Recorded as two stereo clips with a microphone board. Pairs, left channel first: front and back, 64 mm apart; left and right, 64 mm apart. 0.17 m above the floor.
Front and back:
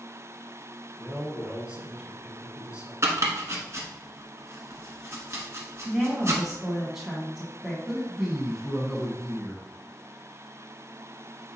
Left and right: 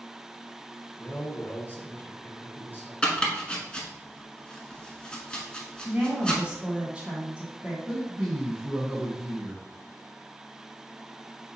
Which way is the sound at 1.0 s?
120° left.